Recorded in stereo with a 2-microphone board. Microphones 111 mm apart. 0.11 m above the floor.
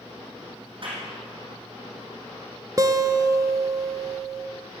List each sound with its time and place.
0.8 s a clap: 50° right (ahead or behind), 4 m
2.8 s a guitar: 30° right (ahead or behind), 0.7 m